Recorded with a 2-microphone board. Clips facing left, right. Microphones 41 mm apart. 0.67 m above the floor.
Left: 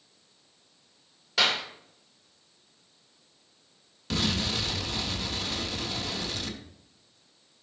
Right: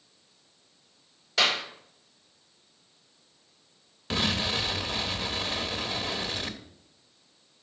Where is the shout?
I don't hear a shout.